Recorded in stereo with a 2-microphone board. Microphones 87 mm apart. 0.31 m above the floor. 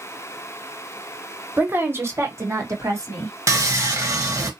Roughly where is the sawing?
Right.